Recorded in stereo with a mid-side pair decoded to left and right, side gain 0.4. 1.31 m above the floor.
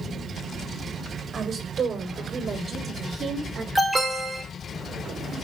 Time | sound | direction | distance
1.3 | a woman speaking | 50° right | 6.5 m
3.8 | an alarm | 10° right | 5 m